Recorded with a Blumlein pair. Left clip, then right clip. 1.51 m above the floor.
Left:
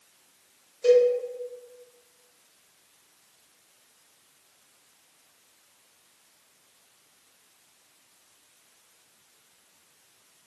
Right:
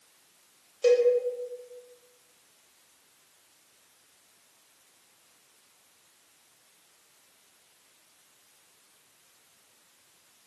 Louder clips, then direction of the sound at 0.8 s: Left 3 dB; 25° right.